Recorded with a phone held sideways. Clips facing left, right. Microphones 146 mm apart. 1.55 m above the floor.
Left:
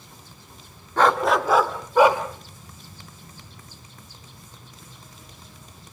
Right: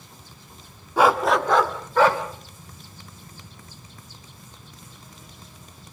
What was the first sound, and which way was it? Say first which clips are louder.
A dog barking: right 1 dB; 10° right (ahead or behind).